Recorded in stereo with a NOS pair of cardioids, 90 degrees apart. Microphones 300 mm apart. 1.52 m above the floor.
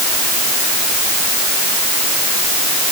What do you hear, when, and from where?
Only background noise.